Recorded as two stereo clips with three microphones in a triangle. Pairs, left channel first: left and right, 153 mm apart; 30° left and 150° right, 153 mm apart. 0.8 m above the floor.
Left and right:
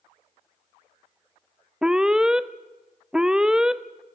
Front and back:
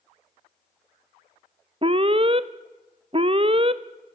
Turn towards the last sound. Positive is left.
turn(degrees=-175)